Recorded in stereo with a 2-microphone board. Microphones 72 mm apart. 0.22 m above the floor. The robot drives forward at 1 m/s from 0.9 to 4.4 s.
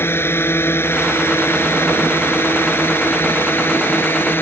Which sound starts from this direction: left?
A drone, at 0.0 s.